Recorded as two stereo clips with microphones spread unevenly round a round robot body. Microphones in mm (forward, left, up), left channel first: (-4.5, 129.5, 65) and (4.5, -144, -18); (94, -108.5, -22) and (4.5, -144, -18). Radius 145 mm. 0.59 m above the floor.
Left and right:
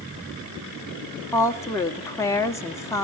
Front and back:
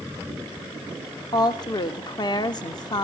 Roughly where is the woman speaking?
Ahead.